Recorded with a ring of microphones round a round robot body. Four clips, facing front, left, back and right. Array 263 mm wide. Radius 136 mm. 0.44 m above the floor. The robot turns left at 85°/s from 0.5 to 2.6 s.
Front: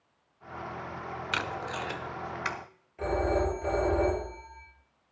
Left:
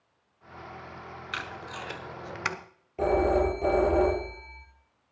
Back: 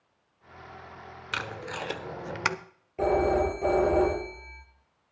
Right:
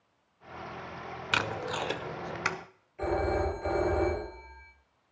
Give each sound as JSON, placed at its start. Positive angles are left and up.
{"t": 1.3, "sound": "tape being pulled", "azimuth_deg": -85, "distance_m": 0.9}
{"t": 3.0, "sound": "a phone ringing", "azimuth_deg": 130, "distance_m": 8.5}